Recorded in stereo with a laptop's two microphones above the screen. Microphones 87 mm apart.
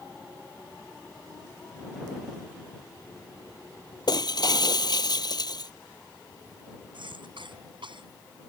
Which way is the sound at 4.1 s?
55° left (ahead or behind).